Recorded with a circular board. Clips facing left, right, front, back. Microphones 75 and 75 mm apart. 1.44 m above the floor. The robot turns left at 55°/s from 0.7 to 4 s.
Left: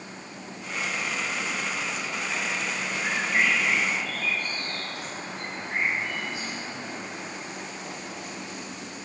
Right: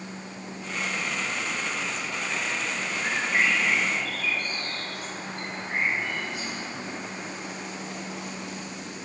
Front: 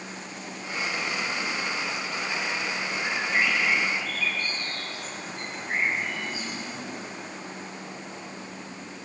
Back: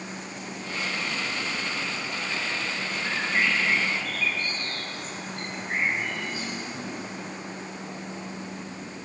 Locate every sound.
3.0 s a bird: 15° right, 7 m; by 6.6 s 70° right, 7 m